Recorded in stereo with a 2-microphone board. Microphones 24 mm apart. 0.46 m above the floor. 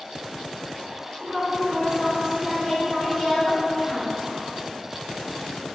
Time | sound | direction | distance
1.2 | a woman speaking | 55° right (ahead or behind) | 1.6 m